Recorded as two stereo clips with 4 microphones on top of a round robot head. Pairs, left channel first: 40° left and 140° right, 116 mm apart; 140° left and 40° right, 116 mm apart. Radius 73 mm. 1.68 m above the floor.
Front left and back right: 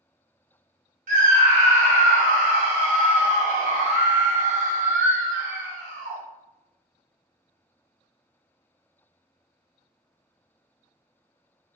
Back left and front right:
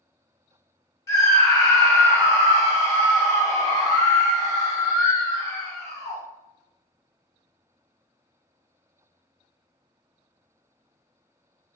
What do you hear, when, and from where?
1.1 s a scream: 155° right, 0.9 m